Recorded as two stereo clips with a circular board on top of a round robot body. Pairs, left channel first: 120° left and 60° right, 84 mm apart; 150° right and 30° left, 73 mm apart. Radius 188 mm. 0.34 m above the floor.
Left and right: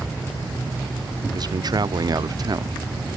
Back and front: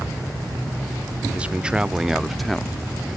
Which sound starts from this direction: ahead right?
A man speaking, at 1.3 s.